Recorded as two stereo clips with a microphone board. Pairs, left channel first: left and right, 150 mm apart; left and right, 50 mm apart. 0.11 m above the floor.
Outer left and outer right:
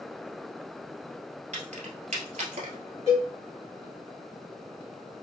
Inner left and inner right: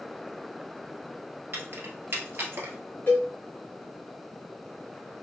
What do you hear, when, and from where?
1.5 s keys jangling: 55° right (ahead or behind), 1.4 m
3.1 s a cowbell: 45° left (ahead or behind), 2.5 m